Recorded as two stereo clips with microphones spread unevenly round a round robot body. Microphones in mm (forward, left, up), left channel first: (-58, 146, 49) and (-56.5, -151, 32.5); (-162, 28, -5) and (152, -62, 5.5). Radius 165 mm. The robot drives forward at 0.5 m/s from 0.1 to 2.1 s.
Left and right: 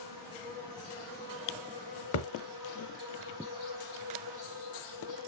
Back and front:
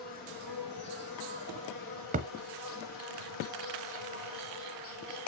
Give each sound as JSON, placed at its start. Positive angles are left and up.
{"t": 0.0, "sound": "an insect", "azimuth_deg": 100, "distance_m": 4.0}
{"t": 2.1, "sound": "a thud", "azimuth_deg": 50, "distance_m": 0.6}